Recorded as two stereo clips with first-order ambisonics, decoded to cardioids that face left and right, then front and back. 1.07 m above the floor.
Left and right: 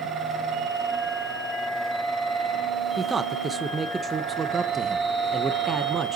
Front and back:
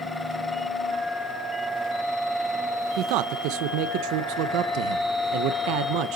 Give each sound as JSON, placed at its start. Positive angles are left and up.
{"t": 3.0, "sound": "a man speaking", "azimuth_deg": -160, "distance_m": 0.6}